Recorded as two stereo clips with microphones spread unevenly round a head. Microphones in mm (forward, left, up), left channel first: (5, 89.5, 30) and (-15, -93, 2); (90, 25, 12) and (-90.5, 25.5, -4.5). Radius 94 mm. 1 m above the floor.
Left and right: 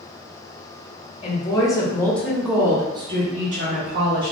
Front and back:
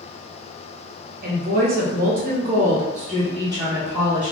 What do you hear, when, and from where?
1.2 s a woman speaking: 150° left, 1.3 m; by 4.3 s 100° right, 1.2 m